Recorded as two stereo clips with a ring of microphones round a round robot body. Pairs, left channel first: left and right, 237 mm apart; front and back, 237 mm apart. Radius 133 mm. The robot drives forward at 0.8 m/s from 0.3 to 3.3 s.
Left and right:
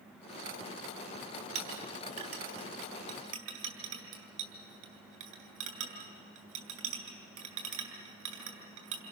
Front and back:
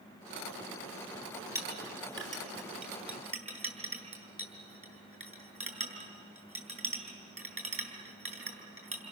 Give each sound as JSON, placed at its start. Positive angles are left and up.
{"t": 1.6, "sound": "a clink", "azimuth_deg": -100, "distance_m": 4.0}